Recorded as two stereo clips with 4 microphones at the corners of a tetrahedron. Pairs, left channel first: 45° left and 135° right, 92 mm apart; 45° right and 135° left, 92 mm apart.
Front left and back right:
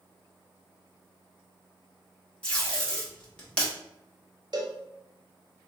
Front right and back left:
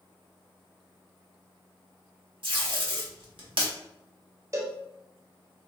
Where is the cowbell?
170° right, 0.6 m.